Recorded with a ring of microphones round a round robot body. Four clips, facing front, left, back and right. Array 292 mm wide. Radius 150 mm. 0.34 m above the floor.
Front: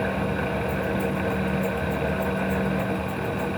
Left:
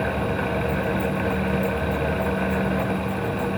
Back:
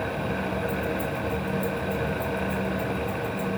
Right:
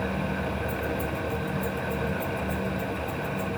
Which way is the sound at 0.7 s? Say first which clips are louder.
Left 6 dB, front 2 dB; 120° right.